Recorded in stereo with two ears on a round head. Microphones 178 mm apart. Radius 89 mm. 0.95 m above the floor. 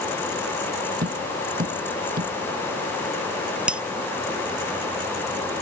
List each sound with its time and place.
1.0 s tapping: 45° right (ahead or behind)
3.7 s breaking glass: 5° right (ahead or behind)